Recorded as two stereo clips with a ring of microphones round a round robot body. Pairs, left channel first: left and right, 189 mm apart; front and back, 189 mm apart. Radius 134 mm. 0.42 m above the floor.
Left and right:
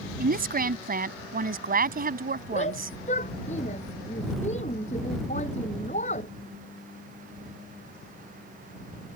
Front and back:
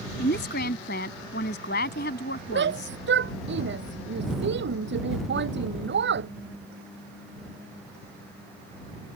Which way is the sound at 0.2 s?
50° right.